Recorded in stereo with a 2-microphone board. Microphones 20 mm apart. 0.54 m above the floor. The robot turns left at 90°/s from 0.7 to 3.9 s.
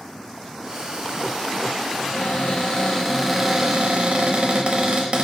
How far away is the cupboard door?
About 0.8 m.